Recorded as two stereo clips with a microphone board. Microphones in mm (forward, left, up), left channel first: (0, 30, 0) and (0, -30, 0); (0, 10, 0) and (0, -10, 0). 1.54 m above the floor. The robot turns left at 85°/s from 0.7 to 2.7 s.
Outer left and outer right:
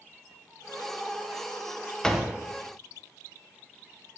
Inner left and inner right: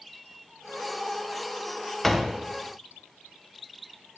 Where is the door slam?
10° left, 0.8 m; by 2.4 s 20° right, 0.8 m.